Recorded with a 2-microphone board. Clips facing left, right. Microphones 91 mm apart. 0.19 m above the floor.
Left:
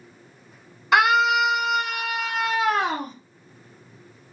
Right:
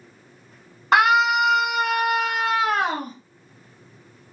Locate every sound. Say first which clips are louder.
0.9 s a scream: right 1 dB; 45° right (ahead or behind), 1.6 m; by 3.1 s 55° right (ahead or behind), 2.5 m